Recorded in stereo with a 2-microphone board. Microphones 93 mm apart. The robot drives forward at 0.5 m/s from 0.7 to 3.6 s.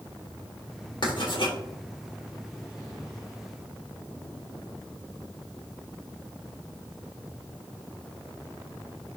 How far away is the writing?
About 3 m.